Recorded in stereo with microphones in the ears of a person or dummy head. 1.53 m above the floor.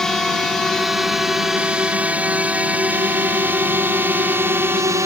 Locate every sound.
0.0 s a drone: 5° right (ahead or behind); by 5.1 s 20° right (ahead or behind)